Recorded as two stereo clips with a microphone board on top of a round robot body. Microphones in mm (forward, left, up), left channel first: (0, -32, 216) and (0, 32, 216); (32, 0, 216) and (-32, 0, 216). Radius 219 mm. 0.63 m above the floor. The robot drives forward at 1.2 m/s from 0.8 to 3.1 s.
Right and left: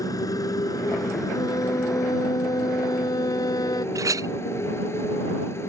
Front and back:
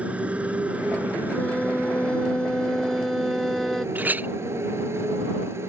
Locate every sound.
0.0 s a motorcycle: 110° right; by 5.7 s 135° right
1.3 s a violin: 70° right; by 3.9 s 90° right
4.0 s a clink: 120° left